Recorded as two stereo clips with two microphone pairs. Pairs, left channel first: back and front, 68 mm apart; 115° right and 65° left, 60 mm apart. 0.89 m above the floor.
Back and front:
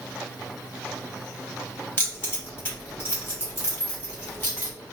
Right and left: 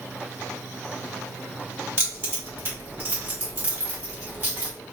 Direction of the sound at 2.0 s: 115° left.